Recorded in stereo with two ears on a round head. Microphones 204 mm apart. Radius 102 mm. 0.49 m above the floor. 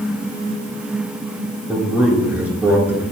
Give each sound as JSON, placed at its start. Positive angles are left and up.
{"t": 1.7, "sound": "a man speaking", "side_deg": -5, "distance_m": 6.5}